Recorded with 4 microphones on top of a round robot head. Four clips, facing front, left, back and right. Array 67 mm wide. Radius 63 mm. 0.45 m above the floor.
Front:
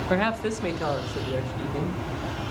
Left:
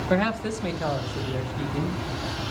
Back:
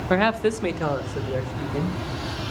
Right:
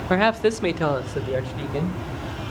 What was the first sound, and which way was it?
A man speaking, 130° right.